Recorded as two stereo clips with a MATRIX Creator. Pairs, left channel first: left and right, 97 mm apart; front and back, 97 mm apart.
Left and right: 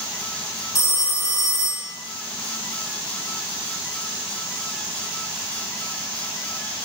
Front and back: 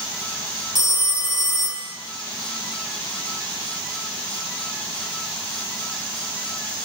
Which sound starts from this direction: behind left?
A phone ringing, at 0.8 s.